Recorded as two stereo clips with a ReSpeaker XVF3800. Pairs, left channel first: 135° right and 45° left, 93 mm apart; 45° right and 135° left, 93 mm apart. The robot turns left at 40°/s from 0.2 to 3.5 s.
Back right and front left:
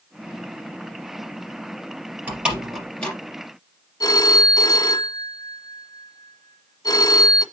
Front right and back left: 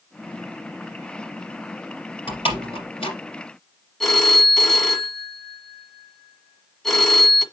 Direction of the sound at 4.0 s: 130° right.